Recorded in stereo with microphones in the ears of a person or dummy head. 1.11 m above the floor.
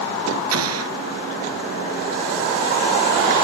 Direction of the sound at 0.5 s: 85° right.